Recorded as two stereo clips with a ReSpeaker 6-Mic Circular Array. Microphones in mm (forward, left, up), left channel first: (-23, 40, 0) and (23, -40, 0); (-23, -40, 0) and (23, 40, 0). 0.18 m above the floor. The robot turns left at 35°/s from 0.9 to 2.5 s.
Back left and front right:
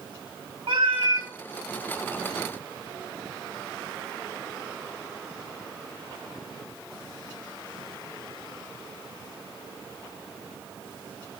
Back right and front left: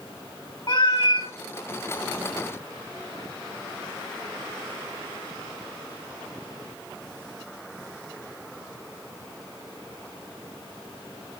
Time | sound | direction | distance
0.7 | a cat meowing | 75° right | 2 m